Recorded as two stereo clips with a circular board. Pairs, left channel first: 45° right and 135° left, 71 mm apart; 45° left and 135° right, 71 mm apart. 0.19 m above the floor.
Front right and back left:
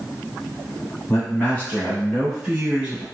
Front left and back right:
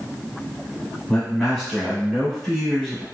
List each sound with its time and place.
1.1 s a man speaking: 45° right, 1.3 m; by 3.0 s 140° left, 1.2 m